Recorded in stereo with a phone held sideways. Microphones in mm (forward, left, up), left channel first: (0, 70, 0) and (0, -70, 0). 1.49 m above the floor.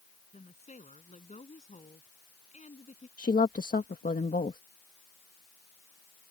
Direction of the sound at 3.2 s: 75° left (ahead or behind).